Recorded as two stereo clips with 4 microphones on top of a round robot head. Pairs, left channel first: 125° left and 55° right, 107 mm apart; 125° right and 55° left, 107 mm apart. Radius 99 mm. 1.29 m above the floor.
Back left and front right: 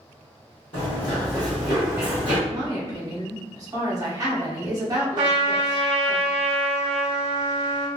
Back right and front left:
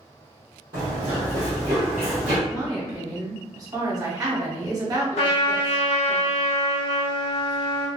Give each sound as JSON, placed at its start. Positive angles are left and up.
{"t": 0.7, "sound": "running footsteps", "azimuth_deg": 100, "distance_m": 1.6}
{"t": 2.5, "sound": "a woman speaking", "azimuth_deg": 0, "distance_m": 1.1}
{"t": 5.2, "sound": "a trumpet", "azimuth_deg": -100, "distance_m": 0.6}